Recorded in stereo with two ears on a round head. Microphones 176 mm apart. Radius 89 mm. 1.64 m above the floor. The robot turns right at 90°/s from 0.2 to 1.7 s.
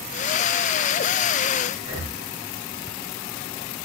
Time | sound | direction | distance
1.8 | breathing | 25° right (ahead or behind) | 0.8 m